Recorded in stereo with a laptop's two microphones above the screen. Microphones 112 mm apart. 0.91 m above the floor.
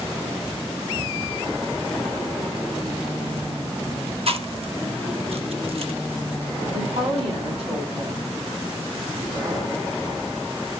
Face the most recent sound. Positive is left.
turn(degrees=-70)  # may be behind; listen again after turning